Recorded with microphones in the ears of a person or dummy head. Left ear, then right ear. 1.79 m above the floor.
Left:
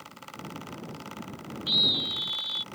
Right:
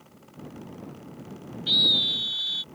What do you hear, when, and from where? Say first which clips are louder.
1.7 s a scream: right 4 dB; 30° right (ahead or behind)